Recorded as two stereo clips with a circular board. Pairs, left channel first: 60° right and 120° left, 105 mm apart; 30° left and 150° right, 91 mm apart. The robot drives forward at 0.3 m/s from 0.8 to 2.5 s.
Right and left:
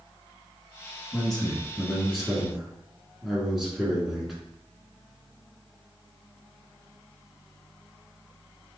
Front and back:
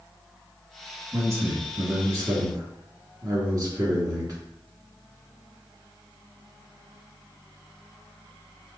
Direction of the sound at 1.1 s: 140° right.